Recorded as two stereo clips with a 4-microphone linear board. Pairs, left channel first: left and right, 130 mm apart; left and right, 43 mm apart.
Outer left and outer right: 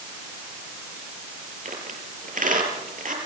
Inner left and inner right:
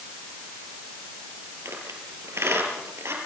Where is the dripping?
No dripping in this recording.